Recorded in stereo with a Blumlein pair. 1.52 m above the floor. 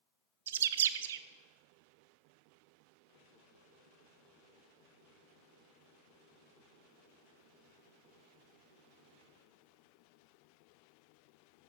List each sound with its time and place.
0.5 s a bird: 60° right, 0.5 m